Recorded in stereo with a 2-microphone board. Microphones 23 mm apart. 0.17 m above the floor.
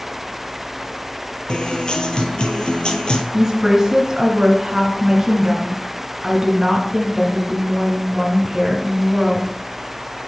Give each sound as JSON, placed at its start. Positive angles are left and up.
{"t": 1.5, "sound": "a guitar", "side_deg": 40, "distance_m": 0.7}
{"t": 3.3, "sound": "a woman speaking", "side_deg": -25, "distance_m": 1.7}